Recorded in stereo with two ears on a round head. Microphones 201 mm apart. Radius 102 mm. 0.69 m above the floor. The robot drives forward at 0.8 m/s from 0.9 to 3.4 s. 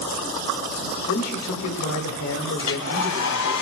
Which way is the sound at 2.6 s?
70° left (ahead or behind).